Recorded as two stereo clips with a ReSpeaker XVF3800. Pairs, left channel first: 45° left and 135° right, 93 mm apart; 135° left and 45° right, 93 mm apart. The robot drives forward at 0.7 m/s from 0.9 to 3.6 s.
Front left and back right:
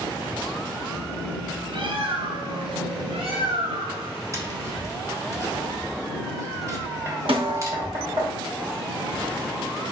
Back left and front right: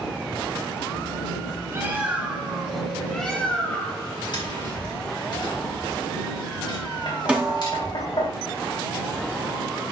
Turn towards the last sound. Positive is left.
turn(degrees=-125)